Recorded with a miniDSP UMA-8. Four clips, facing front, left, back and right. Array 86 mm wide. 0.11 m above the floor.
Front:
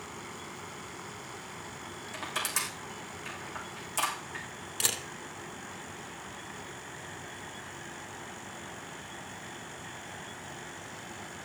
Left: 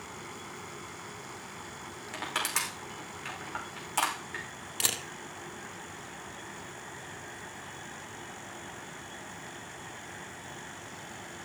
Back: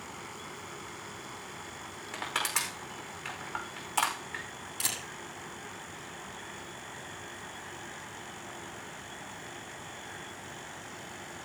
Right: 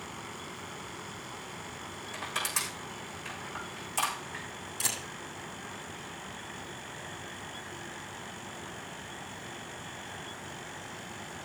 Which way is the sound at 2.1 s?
145° left.